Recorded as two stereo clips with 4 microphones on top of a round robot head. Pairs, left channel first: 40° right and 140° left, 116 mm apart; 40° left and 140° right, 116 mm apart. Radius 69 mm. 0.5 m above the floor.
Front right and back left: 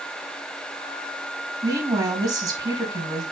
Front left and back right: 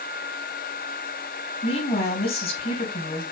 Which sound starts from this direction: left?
A woman speaking, at 1.6 s.